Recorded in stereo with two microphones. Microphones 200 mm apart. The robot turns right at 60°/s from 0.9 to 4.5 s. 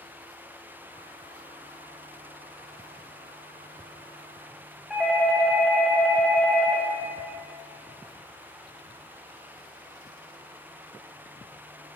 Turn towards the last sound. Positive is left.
turn(degrees=0)  # may be behind; listen again after turning